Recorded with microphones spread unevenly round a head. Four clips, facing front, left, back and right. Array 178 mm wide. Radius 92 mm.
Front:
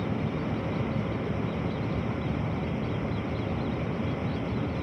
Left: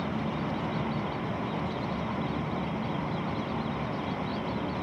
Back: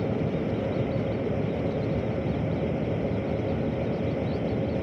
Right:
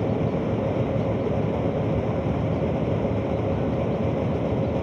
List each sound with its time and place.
0.0 s a fan: 115° right